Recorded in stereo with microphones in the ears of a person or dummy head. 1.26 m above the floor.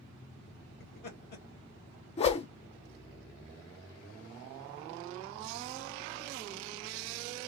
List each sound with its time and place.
0.8 s laughter: 50° left (ahead or behind), 1.8 m
2.2 s a whoosh: 30° left (ahead or behind), 0.5 m